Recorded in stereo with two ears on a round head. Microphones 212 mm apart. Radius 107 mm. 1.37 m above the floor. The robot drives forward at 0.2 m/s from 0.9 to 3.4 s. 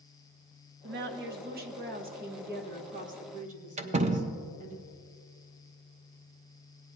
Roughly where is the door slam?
Right.